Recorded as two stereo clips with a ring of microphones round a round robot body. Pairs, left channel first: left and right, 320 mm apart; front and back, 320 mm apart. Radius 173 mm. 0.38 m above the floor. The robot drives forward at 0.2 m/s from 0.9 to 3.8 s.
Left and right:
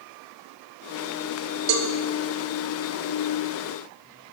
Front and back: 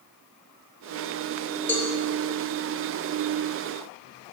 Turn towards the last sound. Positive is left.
turn(degrees=-120)